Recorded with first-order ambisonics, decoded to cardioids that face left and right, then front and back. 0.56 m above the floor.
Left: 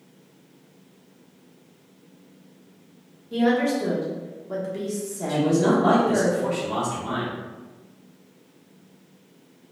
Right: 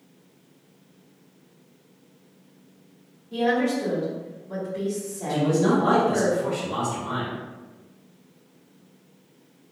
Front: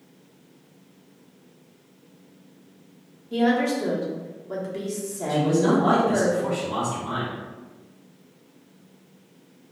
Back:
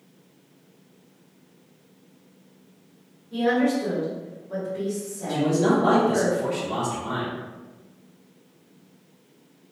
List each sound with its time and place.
3.3 s a woman speaking: 35° left, 0.8 m
5.3 s a man speaking: 115° left, 1.2 m